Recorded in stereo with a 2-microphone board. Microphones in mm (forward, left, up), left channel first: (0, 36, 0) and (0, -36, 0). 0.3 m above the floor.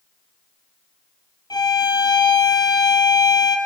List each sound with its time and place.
1.5 s a violin: 80° left, 1.6 m